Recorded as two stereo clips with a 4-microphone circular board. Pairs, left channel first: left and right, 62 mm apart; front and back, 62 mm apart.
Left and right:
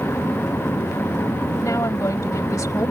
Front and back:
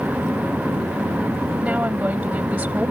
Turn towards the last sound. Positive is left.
turn(degrees=115)